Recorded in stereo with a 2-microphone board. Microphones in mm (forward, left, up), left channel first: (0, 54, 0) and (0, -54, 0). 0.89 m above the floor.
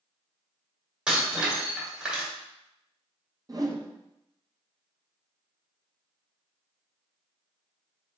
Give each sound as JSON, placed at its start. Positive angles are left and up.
{"t": 1.1, "sound": "breaking glass", "side_deg": -10, "distance_m": 1.8}
{"t": 3.5, "sound": "a whoosh", "side_deg": -35, "distance_m": 0.6}